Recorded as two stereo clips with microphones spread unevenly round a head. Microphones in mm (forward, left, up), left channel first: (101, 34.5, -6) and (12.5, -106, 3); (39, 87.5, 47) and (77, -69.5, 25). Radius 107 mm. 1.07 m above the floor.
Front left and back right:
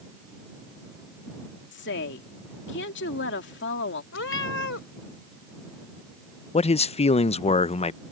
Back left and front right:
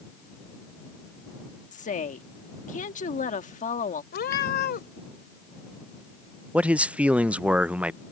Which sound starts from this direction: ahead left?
A woman speaking, at 1.7 s.